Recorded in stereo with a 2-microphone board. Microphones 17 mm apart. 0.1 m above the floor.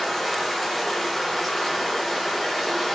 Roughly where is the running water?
Centre.